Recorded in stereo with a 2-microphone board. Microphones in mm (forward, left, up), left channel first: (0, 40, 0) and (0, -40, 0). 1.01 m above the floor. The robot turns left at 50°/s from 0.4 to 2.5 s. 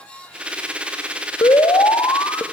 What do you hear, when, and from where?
1.4 s an alarm: 100° left, 2 m; by 2.4 s 50° left, 2 m